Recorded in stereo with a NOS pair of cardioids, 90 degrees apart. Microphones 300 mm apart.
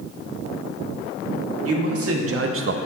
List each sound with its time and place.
1.6 s a man speaking: 50° right, 2.0 m; by 2.8 s 40° right, 0.6 m